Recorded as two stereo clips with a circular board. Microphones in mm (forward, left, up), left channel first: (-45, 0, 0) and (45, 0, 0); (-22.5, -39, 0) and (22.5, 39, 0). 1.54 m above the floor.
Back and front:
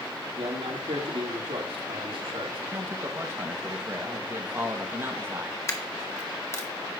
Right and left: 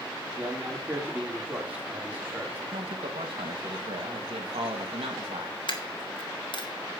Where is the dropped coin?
125° right, 1.4 m.